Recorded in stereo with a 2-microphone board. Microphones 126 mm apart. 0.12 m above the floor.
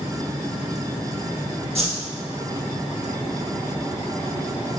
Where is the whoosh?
55° right (ahead or behind), 3 m.